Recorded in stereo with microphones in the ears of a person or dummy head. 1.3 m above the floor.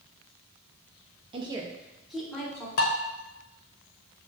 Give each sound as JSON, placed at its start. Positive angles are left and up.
{"t": 1.3, "sound": "a woman speaking", "side_deg": -30, "distance_m": 0.5}
{"t": 2.8, "sound": "dishes clattering", "side_deg": 55, "distance_m": 0.8}